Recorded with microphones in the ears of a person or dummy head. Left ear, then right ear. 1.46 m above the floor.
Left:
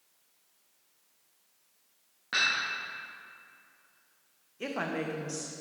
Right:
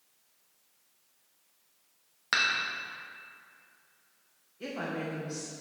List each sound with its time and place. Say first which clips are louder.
2.3 s dishes clattering: even; 40° right (ahead or behind), 1.1 m
4.6 s a woman speaking: left 2 dB; 30° left (ahead or behind), 0.9 m